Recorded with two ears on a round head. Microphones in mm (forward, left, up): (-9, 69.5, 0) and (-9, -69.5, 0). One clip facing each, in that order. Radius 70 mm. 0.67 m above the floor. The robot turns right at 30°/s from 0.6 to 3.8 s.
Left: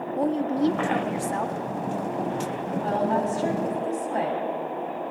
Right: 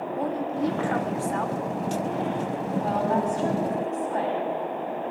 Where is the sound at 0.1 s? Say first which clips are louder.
Left 5 dB; 30° left (ahead or behind), 0.8 m; by 1.6 s 10° left (ahead or behind), 0.8 m.